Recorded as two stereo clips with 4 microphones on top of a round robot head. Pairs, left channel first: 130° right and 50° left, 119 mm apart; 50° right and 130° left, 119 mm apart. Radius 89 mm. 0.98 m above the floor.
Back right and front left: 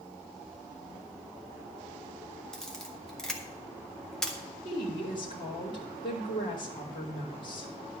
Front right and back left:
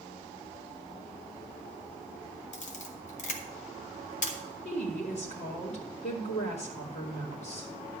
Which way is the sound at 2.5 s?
40° right.